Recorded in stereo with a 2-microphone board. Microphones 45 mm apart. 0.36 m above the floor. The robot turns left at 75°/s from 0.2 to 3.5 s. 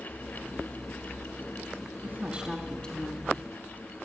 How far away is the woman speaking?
About 3 m.